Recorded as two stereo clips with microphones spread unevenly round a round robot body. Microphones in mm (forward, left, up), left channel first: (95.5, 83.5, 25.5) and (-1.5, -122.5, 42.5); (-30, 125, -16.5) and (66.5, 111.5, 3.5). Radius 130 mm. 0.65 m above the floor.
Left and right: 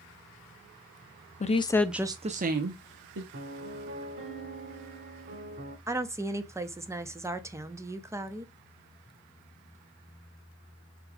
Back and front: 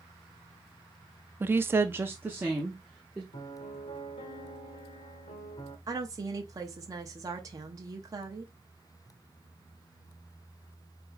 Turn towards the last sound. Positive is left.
turn(degrees=-45)